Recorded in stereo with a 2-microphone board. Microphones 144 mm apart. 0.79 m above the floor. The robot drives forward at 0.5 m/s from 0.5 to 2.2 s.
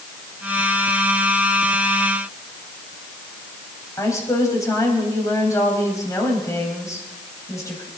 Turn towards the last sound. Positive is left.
turn(degrees=20)  # may be behind; listen again after turning